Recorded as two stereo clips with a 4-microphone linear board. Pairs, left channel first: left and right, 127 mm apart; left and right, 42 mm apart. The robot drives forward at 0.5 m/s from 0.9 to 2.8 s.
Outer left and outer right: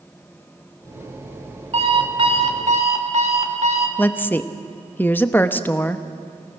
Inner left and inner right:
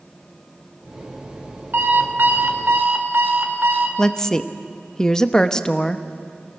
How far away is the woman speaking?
About 0.9 m.